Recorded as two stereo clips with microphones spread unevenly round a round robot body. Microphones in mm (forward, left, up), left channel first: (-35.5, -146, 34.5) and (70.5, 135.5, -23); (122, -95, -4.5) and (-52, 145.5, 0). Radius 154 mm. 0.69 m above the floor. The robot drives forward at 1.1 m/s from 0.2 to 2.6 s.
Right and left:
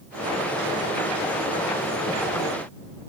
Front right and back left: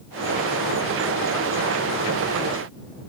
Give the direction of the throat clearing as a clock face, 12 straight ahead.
I don't hear throat clearing.